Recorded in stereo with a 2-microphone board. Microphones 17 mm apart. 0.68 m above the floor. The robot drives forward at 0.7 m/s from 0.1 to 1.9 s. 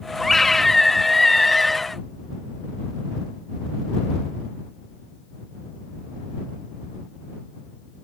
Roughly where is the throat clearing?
I don't hear throat clearing.